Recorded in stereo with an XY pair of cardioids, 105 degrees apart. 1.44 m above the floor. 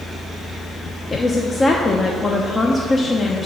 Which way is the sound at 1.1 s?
30° left.